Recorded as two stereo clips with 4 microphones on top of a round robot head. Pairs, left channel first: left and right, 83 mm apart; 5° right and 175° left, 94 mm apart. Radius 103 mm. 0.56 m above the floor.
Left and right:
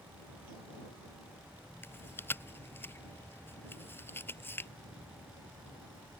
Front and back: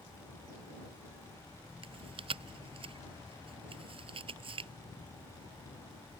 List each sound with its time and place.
1.8 s chewing: 155° left